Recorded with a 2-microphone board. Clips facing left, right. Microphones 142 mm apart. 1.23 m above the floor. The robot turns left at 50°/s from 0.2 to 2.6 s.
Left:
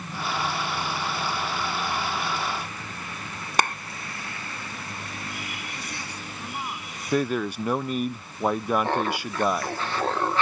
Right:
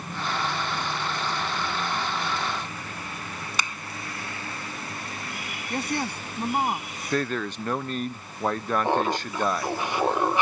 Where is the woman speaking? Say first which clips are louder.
Right 9 dB; 60° right (ahead or behind).